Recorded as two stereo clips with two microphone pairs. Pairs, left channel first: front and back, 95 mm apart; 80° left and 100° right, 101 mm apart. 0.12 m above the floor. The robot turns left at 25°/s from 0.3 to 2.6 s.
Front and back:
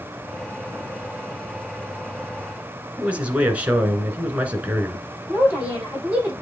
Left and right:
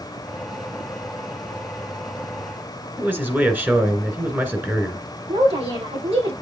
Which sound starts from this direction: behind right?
A man speaking, at 3.0 s.